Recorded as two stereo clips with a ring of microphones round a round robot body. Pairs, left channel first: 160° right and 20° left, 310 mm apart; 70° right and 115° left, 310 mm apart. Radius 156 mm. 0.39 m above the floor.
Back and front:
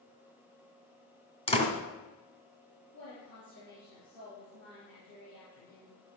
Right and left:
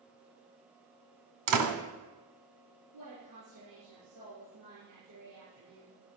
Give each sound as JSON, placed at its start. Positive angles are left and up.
{"t": 1.5, "sound": "a door slam", "azimuth_deg": 130, "distance_m": 2.5}
{"t": 2.9, "sound": "a woman speaking", "azimuth_deg": 150, "distance_m": 6.5}